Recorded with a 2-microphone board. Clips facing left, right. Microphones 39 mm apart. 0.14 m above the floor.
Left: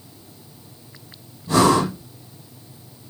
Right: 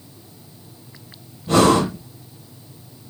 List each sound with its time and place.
1.5 s breathing: 50° right (ahead or behind), 4.5 m